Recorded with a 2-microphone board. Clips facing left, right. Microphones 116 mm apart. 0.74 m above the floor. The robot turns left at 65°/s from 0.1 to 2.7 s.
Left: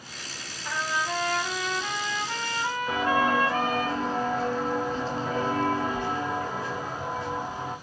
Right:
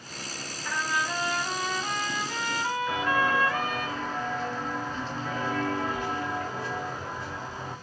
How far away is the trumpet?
About 1.5 m.